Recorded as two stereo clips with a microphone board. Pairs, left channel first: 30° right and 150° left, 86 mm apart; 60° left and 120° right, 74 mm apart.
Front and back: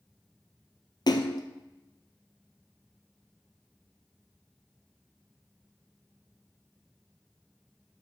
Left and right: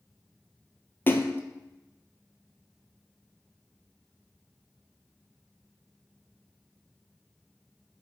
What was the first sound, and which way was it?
A splash, straight ahead.